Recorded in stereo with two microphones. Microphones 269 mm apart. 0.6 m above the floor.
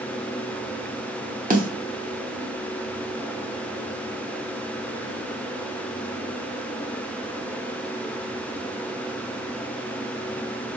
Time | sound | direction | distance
1.5 | a snare drum | 30° right (ahead or behind) | 1.1 m